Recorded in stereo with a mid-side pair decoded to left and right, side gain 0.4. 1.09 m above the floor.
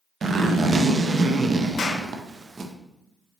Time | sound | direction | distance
0.2 | a zipper | 45° right | 0.6 m
1.8 | a clap | 60° left | 0.9 m